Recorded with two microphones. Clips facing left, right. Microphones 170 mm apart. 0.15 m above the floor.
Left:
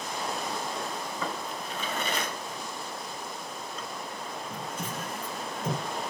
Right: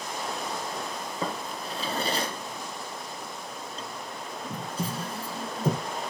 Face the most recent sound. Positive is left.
turn(degrees=-35)  # may be behind; listen again after turning